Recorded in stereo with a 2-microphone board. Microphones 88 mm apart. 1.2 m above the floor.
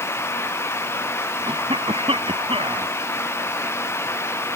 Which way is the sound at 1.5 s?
85° right.